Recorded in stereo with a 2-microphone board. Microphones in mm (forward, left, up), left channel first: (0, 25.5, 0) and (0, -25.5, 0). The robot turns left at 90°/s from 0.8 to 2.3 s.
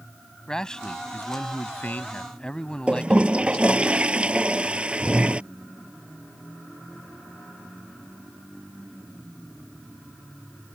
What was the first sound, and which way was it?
A man speaking, 160° left.